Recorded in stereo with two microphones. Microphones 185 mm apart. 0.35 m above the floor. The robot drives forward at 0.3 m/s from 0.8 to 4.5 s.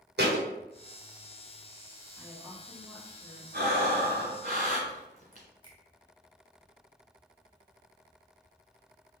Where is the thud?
70° right (ahead or behind), 1.1 m.